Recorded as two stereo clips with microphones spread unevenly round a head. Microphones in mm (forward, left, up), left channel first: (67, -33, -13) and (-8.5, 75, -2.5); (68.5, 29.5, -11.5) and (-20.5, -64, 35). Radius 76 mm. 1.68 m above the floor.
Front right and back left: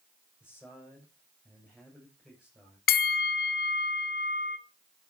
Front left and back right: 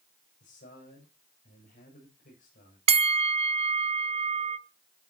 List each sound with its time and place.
0.4 s a man speaking: 40° left, 7.5 m
2.9 s a bell: 90° right, 0.9 m